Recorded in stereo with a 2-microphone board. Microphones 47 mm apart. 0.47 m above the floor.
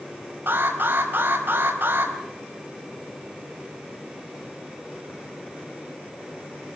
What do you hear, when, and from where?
0.5 s an alarm: 50° right (ahead or behind), 4.5 m